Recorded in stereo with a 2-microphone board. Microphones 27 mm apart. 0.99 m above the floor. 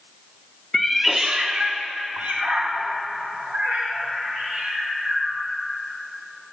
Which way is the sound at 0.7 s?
10° left (ahead or behind).